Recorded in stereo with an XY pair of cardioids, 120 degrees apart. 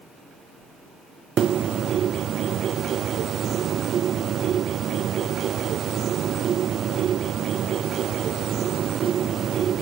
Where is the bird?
50° right, 0.9 m.